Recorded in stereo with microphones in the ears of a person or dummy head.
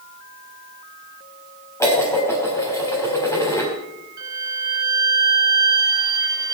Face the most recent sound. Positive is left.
turn(degrees=-20)  # may be behind; listen again after turning